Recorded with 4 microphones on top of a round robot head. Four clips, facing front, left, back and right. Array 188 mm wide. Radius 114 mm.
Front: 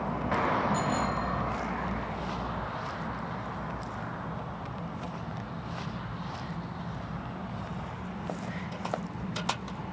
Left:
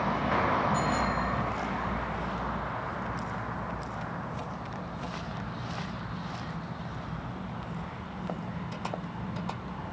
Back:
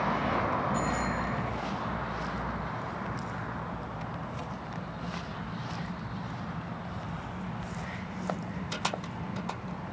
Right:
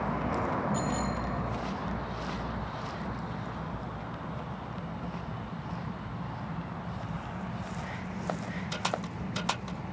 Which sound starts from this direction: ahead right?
A bicycle bell, at 0.7 s.